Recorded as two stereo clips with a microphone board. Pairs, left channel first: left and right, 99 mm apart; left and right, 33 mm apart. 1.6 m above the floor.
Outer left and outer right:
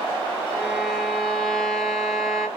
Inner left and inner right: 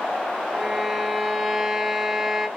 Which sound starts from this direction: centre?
A violin, at 0.5 s.